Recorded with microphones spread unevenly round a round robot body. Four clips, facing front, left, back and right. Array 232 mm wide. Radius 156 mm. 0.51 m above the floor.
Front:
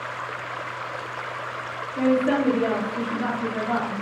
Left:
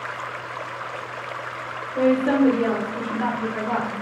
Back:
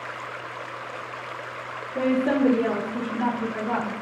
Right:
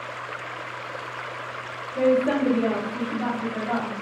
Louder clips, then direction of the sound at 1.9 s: Left 2 dB, front 1 dB; 140° left.